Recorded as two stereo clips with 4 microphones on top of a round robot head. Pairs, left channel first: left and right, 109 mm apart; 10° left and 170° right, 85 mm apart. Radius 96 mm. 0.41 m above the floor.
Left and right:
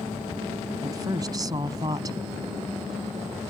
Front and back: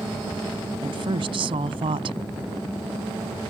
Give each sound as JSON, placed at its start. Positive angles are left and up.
{"t": 0.8, "sound": "a woman speaking", "azimuth_deg": -150}